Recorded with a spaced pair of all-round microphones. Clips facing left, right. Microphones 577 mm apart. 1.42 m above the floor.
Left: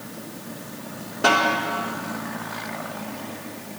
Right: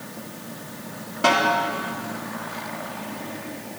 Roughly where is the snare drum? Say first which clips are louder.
Even; right.